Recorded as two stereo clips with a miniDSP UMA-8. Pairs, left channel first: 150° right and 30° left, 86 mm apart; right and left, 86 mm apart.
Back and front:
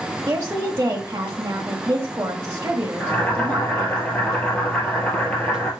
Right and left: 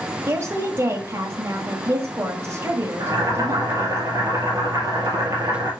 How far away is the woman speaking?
About 1.3 m.